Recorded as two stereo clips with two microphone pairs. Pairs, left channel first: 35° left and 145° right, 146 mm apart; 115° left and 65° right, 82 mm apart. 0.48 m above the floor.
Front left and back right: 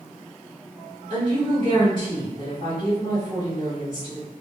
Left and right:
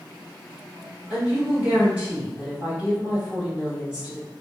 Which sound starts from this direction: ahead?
A woman speaking, at 1.1 s.